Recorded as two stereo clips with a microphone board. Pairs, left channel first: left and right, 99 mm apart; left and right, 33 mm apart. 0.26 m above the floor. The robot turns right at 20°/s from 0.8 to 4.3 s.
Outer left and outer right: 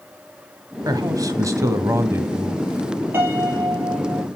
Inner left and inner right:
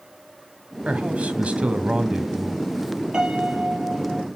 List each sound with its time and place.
0.8 s a man speaking: 65° right, 1.8 m; by 3.0 s 20° right, 1.8 m
3.1 s a piano: 25° right (ahead or behind), 5.5 m; by 4.3 s 45° right (ahead or behind), 5.5 m